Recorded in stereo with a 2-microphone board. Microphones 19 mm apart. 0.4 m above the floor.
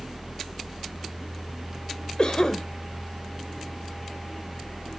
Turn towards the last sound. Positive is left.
turn(degrees=45)  # may be behind; listen again after turning